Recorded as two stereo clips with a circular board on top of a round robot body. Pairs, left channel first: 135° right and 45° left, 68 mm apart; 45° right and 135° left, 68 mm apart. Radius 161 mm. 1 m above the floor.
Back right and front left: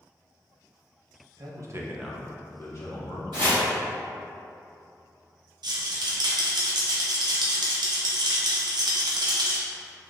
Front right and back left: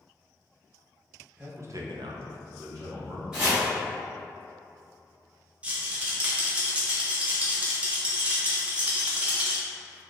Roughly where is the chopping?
Ahead left.